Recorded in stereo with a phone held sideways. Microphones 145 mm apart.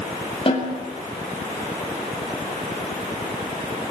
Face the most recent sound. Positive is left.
turn(degrees=40)  # may be behind; listen again after turning